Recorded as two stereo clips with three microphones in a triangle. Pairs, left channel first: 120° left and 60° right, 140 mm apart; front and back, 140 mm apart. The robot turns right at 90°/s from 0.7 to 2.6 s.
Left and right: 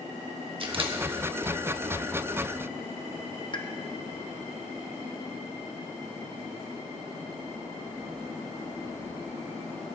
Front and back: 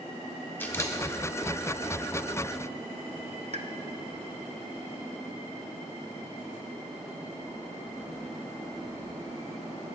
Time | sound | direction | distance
0.6 | a camera shutter | 65° right | 0.9 m
3.5 | a pop | 165° left | 0.6 m